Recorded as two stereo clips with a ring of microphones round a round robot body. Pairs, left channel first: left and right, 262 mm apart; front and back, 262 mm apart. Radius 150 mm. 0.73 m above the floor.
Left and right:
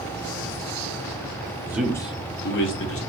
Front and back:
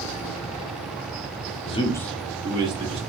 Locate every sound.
1.6 s a man speaking: 30° right, 0.5 m; by 3.0 s 115° left, 0.9 m